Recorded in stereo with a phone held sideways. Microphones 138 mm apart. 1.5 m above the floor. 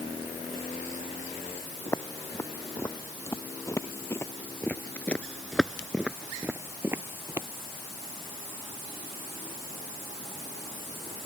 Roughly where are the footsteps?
Left.